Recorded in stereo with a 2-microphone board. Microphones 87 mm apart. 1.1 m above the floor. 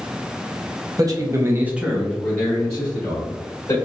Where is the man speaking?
45° right (ahead or behind), 0.9 m; by 3.7 s 35° left (ahead or behind), 1.9 m.